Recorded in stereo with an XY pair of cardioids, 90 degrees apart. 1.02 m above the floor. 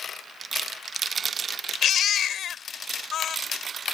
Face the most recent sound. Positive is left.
turn(degrees=65)